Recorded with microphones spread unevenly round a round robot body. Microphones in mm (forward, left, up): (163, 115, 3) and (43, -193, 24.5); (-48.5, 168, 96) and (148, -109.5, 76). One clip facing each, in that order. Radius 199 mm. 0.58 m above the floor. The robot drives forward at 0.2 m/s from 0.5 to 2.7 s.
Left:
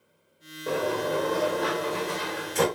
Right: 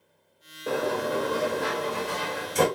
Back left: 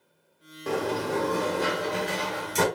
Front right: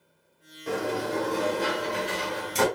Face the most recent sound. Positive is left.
turn(degrees=165)